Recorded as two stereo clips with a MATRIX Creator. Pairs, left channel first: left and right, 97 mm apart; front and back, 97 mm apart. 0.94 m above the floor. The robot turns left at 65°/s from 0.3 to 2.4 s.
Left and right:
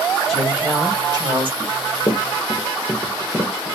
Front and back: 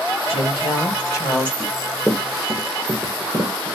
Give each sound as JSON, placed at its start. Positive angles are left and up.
{"t": 0.3, "sound": "a woman speaking", "azimuth_deg": 0, "distance_m": 2.0}
{"t": 1.6, "sound": "running footsteps", "azimuth_deg": 115, "distance_m": 1.0}